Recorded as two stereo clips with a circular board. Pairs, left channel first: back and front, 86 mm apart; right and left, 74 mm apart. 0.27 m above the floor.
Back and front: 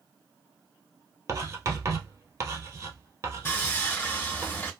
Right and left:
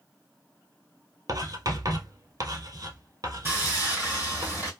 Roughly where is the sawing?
Behind left.